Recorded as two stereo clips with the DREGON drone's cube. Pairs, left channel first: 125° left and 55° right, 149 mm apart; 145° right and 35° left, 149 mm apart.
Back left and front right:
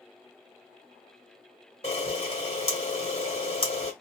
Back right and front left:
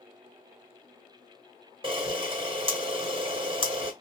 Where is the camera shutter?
80° left, 1.2 m.